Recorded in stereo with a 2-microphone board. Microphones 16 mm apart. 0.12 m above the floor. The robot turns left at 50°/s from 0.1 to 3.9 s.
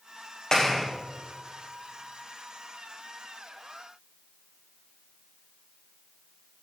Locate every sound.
0.5 s a clap: 40° left (ahead or behind), 6.5 m; by 0.8 s 20° left (ahead or behind), 6.5 m